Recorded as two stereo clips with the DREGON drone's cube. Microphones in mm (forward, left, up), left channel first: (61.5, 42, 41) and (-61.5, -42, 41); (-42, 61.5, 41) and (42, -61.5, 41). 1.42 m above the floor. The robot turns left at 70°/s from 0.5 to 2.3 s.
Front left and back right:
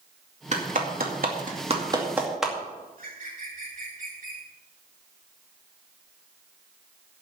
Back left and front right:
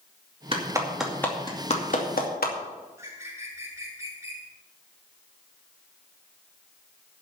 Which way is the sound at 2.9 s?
125° right.